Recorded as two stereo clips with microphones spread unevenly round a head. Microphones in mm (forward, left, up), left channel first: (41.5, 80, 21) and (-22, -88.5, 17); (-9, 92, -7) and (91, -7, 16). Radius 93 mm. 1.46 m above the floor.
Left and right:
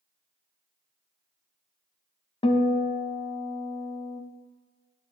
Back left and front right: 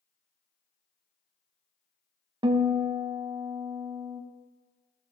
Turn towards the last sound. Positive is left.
turn(degrees=10)